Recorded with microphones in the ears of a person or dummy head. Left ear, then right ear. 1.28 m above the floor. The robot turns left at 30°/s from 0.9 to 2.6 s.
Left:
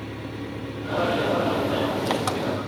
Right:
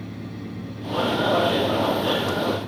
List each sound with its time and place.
0.0 s an engine running: 135° left, 1.9 m; by 2.7 s 85° left, 1.9 m